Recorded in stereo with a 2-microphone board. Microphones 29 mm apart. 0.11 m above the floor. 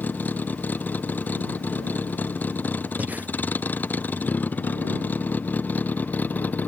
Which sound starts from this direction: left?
A vehicle, at 0.0 s.